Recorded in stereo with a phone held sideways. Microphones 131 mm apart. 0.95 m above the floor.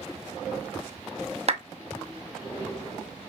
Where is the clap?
55° right (ahead or behind), 0.9 m.